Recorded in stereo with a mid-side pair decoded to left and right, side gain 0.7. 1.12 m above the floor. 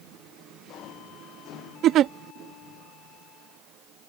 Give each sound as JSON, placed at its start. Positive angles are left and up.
{"t": 1.8, "sound": "a giggle", "azimuth_deg": -50}